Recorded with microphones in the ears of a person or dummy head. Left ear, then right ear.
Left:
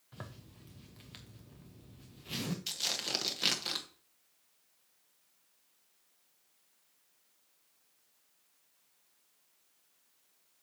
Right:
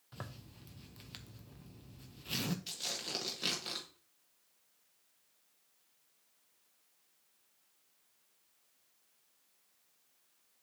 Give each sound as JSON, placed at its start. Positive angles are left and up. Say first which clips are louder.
{"t": 0.1, "sound": "a zipper", "louder": "right 1 dB", "side_deg": -15, "distance_m": 0.8}
{"t": 2.7, "sound": "tearing paper", "louder": "left 5 dB", "side_deg": 20, "distance_m": 1.3}